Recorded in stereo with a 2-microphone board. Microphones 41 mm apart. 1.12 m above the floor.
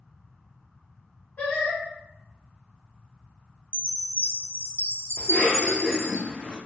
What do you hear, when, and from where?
1.4 s singing: 35° left (ahead or behind), 1.0 m
3.7 s a chime: 65° right (ahead or behind), 0.5 m
5.2 s a cough: 60° left (ahead or behind), 0.6 m